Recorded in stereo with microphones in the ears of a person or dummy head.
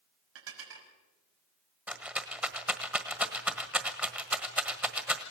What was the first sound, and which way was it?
Dishes clattering, 80° right.